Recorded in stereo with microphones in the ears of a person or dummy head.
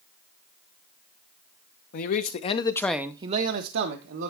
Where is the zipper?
No zipper in this recording.